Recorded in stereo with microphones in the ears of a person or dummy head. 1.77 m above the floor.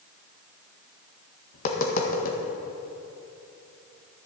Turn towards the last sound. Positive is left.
turn(degrees=45)  # may be behind; listen again after turning